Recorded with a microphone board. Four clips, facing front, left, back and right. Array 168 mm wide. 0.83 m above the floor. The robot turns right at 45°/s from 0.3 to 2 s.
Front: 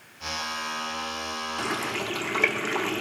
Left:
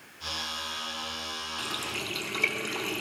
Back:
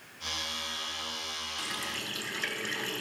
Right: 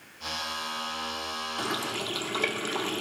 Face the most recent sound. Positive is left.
turn(degrees=-20)